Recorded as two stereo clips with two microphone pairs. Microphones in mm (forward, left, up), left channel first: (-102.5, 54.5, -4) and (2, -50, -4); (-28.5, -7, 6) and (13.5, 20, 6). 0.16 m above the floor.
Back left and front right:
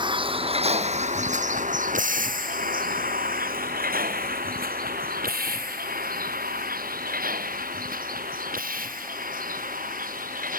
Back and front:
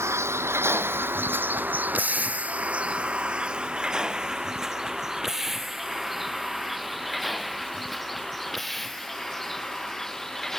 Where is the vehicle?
10° left; by 10.6 s 65° right.